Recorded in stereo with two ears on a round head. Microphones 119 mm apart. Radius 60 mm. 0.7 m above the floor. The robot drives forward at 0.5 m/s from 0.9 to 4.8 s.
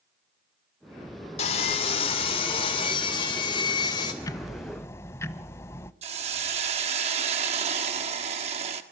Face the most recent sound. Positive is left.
turn(degrees=-50)  # may be behind; listen again after turning